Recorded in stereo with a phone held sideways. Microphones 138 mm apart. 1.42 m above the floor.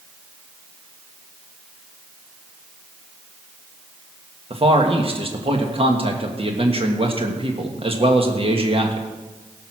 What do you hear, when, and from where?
4.5 s a man speaking: 45° right (ahead or behind), 1.6 m